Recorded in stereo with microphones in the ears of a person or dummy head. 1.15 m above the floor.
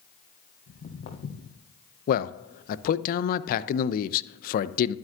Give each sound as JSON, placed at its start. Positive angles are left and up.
{"t": 0.7, "sound": "footsteps", "side_deg": 55, "distance_m": 2.5}
{"t": 2.1, "sound": "a man speaking", "side_deg": 50, "distance_m": 0.5}